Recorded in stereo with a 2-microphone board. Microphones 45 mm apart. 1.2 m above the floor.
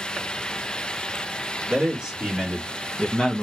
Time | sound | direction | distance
1.7 | a man speaking | 20° right (ahead or behind) | 2.5 m